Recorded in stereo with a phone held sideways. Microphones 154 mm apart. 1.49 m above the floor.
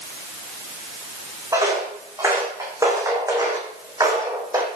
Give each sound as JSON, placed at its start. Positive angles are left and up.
{"t": 1.5, "sound": "footsteps", "side_deg": -20, "distance_m": 5.0}